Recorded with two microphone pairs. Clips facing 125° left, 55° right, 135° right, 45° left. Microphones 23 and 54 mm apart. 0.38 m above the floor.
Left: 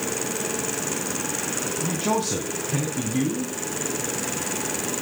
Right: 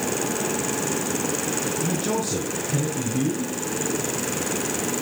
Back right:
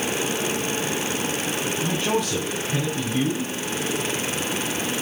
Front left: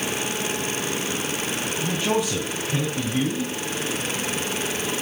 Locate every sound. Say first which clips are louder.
1.8 s a man speaking: left 4 dB, front left 1 dB; 130° left, 3.5 m